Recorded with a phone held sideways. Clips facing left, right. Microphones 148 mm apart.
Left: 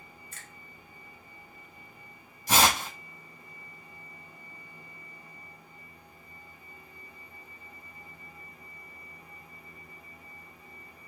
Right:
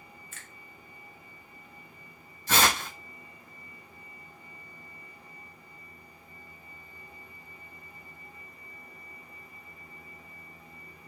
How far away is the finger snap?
About 0.7 m.